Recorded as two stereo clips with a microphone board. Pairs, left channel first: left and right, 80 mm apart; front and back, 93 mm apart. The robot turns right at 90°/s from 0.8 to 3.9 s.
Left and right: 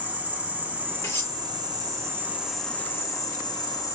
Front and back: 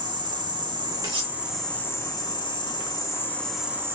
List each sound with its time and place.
0.0 s an insect: 155° right, 1.0 m; by 3.9 s 120° left, 1.0 m
1.0 s cutlery clinking: 135° left, 1.5 m; by 1.4 s 165° left, 1.5 m